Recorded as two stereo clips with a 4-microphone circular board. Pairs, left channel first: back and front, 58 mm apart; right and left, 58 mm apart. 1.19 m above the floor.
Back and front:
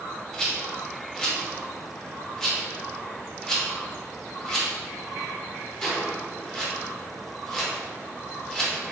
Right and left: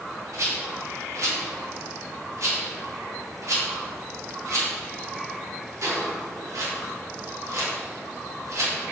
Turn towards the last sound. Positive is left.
turn(degrees=100)